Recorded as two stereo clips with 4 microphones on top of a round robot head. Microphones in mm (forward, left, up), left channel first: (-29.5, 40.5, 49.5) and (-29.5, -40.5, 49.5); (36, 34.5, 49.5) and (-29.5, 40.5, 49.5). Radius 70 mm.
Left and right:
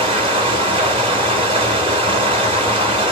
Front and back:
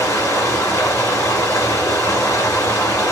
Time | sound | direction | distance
0.0 | running water | 70° right | 1.1 m